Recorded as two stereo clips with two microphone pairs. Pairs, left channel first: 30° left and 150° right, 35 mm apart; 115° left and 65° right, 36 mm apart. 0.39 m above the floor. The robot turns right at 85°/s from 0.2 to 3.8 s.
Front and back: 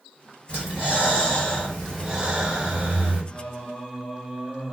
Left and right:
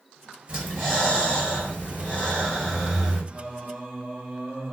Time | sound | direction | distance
0.5 | breathing | straight ahead | 1.6 m
3.3 | singing | 130° right | 1.5 m